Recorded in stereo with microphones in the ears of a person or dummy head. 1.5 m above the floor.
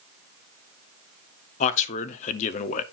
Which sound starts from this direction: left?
A man speaking, at 1.6 s.